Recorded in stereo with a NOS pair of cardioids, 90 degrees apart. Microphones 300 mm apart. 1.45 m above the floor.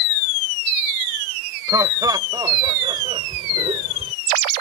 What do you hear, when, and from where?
1.7 s laughter: 10° right; by 4.1 s 20° right